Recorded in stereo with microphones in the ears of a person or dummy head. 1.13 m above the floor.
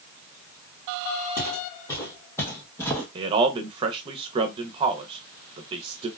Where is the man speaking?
30° right (ahead or behind), 0.5 m.